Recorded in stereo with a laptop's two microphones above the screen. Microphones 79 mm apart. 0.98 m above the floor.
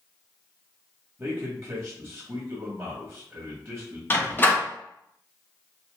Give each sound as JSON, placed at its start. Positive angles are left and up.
{"t": 1.2, "sound": "a man speaking", "side_deg": -35, "distance_m": 1.5}
{"t": 4.1, "sound": "a door slam", "side_deg": 25, "distance_m": 0.9}